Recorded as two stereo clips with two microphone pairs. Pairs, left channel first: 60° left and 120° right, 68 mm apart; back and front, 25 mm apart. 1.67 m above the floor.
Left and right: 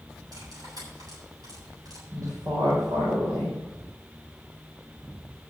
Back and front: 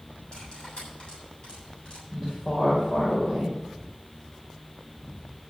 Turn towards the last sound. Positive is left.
turn(degrees=-125)